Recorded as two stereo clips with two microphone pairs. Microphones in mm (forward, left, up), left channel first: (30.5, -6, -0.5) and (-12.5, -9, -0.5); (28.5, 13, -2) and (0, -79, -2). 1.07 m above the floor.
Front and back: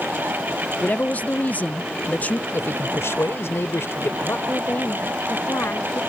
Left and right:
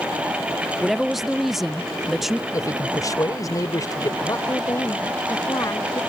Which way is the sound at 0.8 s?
25° right.